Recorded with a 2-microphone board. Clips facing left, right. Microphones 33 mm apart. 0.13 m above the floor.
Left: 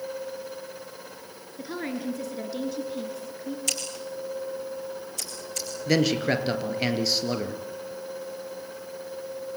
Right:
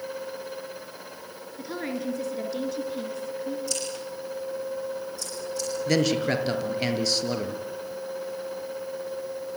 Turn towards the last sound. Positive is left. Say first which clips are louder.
# left 1 dB
turn(degrees=10)  # may be behind; listen again after turning